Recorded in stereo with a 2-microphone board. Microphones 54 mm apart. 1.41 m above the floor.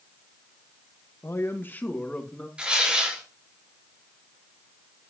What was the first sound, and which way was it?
A man speaking, 50° left (ahead or behind).